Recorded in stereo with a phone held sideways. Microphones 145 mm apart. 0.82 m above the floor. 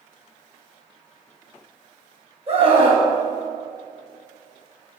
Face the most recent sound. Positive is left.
turn(degrees=-45)  # may be behind; listen again after turning